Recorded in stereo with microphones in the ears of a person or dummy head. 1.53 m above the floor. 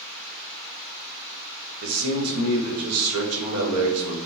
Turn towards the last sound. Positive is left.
turn(degrees=-75)  # may be behind; listen again after turning